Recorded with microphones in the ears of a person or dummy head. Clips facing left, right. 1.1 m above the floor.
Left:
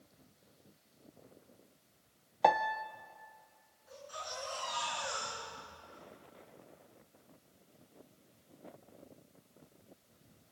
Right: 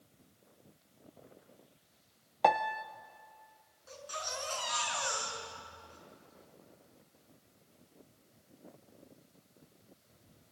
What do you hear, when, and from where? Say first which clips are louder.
2.4 s a piano: even; centre (ahead or behind), 0.6 m
3.9 s a baby crying: right 3 dB; 75° right (ahead or behind), 7 m